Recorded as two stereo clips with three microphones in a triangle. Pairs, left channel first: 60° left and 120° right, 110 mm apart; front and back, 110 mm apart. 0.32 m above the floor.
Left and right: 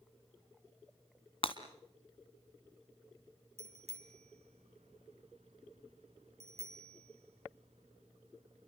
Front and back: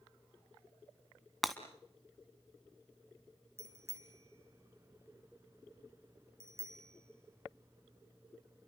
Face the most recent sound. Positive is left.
turn(degrees=-115)